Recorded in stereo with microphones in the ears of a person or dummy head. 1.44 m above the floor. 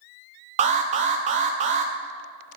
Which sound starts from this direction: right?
An alarm, at 0.6 s.